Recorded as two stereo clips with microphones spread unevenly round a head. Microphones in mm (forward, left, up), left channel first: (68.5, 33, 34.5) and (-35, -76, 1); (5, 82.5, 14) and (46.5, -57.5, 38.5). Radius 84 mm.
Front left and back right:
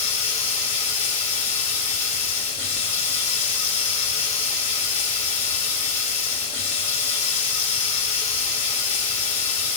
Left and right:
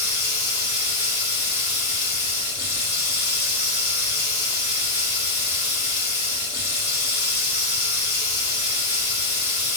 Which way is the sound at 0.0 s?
140° left.